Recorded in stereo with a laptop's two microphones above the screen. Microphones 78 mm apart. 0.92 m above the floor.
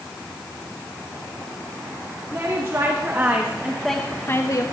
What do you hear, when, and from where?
2.3 s a woman speaking: 40° right (ahead or behind), 2.5 m; by 4.6 s 50° left (ahead or behind), 1.1 m